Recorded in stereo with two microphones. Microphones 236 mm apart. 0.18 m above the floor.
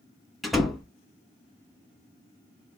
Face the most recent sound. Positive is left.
turn(degrees=0)  # may be behind; listen again after turning